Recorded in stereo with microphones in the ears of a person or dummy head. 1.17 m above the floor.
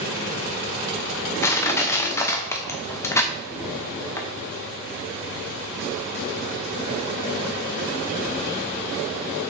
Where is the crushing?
15° left (ahead or behind), 0.7 m.